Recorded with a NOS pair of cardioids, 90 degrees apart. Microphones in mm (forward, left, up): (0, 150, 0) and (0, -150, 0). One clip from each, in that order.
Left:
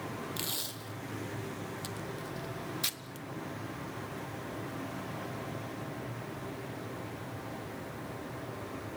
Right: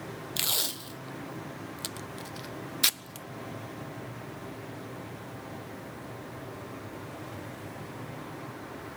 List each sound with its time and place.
0.4 s tape being pulled: 40° right, 0.6 m